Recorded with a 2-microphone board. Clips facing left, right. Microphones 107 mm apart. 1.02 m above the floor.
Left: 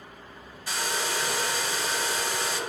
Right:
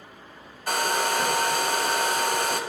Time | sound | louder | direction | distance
0.7 | a hair dryer | right 6 dB | 55° right (ahead or behind) | 0.6 m